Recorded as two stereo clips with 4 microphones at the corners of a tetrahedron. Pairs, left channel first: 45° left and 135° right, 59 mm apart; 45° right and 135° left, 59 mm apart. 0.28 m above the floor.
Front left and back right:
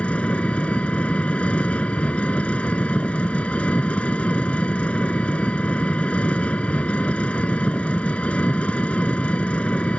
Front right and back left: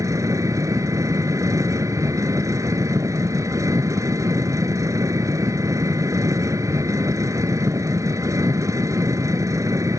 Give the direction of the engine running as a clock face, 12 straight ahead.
8 o'clock.